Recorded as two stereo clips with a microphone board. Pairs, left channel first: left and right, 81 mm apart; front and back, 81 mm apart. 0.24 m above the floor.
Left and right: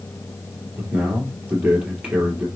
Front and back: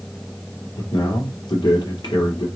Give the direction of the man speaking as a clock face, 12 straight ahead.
1 o'clock.